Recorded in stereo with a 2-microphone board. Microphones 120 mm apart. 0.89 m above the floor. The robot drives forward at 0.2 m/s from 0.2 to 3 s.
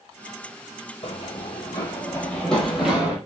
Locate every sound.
1.0 s running footsteps: 50° left (ahead or behind), 1.2 m; by 3.2 s 10° right (ahead or behind), 1.5 m